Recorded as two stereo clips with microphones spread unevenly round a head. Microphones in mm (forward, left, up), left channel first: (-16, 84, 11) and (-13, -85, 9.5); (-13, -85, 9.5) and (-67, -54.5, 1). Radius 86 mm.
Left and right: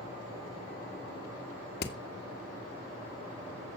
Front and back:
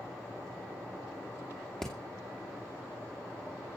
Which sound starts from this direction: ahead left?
Hammering, at 1.8 s.